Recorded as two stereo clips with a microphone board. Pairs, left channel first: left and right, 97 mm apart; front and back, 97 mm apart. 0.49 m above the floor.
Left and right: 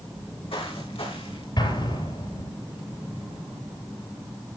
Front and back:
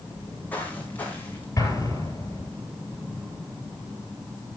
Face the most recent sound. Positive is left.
turn(degrees=55)